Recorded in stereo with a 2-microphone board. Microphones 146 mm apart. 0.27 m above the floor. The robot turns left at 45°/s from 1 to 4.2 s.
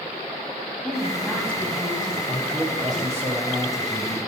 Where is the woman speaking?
Straight ahead, 1.5 m; by 2.2 s 55° right, 1.5 m.